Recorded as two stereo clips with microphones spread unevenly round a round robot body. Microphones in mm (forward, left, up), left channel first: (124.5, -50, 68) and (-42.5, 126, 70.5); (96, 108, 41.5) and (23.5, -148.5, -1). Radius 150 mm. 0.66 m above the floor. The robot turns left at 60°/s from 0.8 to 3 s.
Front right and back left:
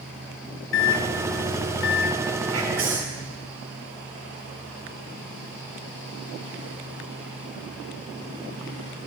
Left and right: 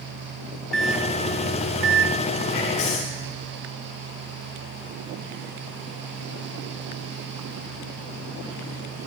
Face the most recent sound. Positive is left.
turn(degrees=95)